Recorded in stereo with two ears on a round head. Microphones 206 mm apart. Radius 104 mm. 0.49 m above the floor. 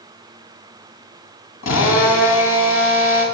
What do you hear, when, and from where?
1.6 s a drill: 60° left (ahead or behind), 5 m